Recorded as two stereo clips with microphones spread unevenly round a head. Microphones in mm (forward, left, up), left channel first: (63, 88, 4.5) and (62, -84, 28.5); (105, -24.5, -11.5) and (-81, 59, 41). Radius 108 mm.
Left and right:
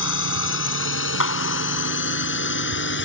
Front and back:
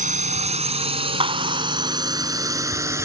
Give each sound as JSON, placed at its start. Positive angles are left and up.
{"t": 0.0, "sound": "a drone", "azimuth_deg": 100}
{"t": 1.2, "sound": "a clap", "azimuth_deg": 90}